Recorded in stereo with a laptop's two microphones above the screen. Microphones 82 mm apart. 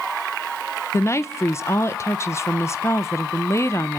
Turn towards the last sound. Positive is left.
turn(degrees=35)  # may be behind; listen again after turning